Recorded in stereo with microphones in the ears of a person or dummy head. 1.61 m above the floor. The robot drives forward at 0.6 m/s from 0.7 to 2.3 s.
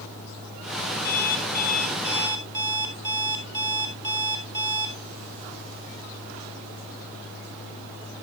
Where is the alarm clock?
20° left (ahead or behind), 4.5 m.